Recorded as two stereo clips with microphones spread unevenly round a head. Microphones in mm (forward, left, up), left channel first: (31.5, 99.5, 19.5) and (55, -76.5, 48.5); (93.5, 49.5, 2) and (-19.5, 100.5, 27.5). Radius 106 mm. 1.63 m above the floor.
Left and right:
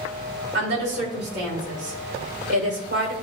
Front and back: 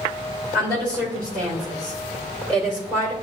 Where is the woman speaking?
120° right, 3 m.